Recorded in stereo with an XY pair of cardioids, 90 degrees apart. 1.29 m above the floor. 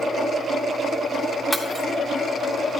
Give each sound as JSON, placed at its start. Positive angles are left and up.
{"t": 1.5, "sound": "breaking glass", "azimuth_deg": 0, "distance_m": 1.8}